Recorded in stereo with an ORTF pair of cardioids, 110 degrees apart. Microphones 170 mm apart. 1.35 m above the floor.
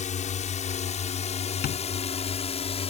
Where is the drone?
45° left; by 2.9 s 40° left.